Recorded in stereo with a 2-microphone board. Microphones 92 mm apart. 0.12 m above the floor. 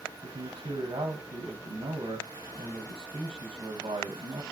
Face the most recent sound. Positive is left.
turn(degrees=-80)